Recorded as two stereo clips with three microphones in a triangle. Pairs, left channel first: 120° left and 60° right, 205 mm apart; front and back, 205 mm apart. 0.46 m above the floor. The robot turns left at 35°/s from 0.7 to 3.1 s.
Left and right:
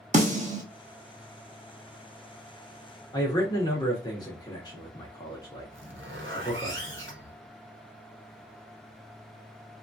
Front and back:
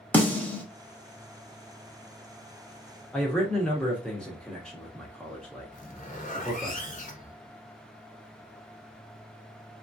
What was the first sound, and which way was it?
A snare drum, 75° right.